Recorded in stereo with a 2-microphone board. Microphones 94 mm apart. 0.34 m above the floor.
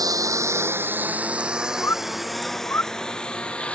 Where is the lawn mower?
40° right (ahead or behind); by 3.8 s 15° left (ahead or behind).